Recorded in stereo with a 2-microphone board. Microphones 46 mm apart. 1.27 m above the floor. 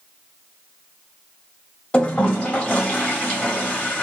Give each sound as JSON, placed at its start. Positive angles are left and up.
{"t": 1.9, "sound": "a toilet flushing", "side_deg": 25, "distance_m": 1.7}